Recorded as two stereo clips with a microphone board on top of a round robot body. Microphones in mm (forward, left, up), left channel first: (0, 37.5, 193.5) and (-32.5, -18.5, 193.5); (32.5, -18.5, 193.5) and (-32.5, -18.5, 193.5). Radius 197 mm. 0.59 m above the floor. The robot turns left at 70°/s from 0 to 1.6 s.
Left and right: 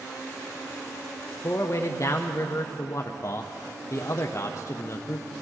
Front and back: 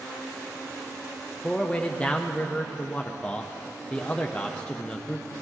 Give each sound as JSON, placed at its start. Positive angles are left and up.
{"t": 1.4, "sound": "a man speaking", "azimuth_deg": 80, "distance_m": 0.8}